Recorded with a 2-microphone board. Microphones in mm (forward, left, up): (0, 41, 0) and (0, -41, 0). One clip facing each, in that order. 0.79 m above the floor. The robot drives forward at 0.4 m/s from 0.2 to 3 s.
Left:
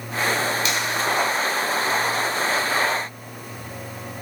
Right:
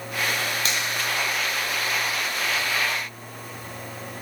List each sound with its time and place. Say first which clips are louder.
0.7 s a finger snap: left 3 dB; 40° right (ahead or behind), 2.5 m